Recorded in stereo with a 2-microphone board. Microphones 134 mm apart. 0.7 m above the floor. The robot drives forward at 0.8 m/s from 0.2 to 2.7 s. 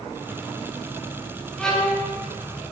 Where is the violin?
5° left (ahead or behind), 1.5 m; by 2.0 s 10° left (ahead or behind), 1.2 m.